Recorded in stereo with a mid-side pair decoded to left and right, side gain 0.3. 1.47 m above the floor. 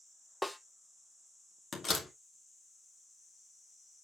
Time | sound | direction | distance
0.4 | a snare drum | 10° left | 1.0 m
1.7 | a door slam | 60° left | 2 m